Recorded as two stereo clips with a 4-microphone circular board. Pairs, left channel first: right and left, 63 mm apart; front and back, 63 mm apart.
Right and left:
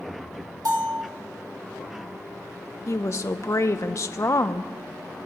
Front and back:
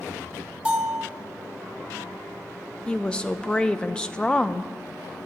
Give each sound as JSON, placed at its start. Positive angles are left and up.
{"t": 0.7, "sound": "a bell", "azimuth_deg": 110, "distance_m": 1.8}
{"t": 2.9, "sound": "a woman speaking", "azimuth_deg": -70, "distance_m": 0.6}